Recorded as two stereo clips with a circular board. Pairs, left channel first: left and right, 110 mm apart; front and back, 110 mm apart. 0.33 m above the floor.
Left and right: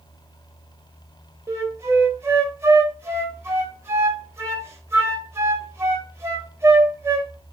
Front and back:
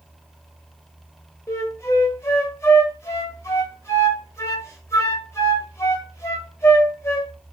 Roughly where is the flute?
Ahead right.